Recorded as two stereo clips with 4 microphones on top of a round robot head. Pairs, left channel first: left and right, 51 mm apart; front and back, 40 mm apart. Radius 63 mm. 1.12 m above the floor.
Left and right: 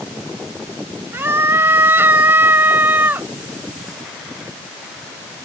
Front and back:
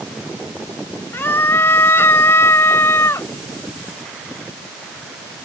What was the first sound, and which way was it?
A scream, 40° right.